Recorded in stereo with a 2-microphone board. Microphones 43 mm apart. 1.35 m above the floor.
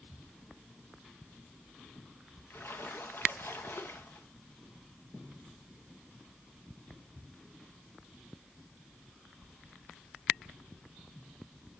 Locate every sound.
2.5 s a splash: 60° left (ahead or behind), 0.8 m